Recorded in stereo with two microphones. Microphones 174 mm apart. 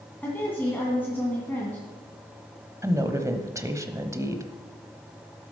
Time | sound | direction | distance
0.2 | a woman speaking | 10° left (ahead or behind) | 2 m
2.8 | a woman speaking | 15° right (ahead or behind) | 1.0 m